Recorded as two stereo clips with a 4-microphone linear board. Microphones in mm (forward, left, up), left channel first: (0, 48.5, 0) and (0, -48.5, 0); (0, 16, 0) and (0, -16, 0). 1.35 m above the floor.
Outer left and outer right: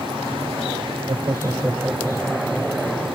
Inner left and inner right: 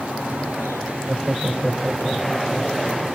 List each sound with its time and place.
1.1 s laughter: 55° right (ahead or behind); by 3.0 s 5° left (ahead or behind)